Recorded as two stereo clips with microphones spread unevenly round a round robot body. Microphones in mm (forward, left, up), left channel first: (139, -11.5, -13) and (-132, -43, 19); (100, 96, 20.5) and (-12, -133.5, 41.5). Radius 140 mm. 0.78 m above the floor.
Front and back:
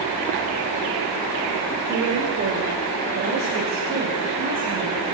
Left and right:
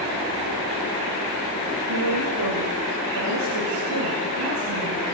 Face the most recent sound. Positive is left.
turn(degrees=-115)